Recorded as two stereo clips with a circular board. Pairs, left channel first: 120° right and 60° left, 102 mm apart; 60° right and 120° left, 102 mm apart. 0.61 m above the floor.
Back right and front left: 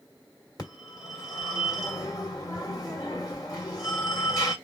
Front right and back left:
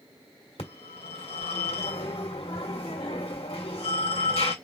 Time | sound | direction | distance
0.6 | a phone ringing | 70° right | 1.7 m